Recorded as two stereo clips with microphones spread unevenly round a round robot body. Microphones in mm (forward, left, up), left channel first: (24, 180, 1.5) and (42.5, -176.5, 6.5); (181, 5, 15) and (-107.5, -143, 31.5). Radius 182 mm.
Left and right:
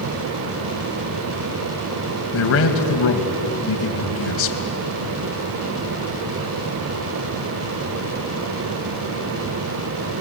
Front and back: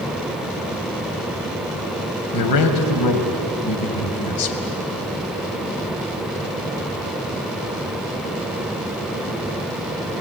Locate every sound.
2.3 s a man speaking: 45° left, 3 m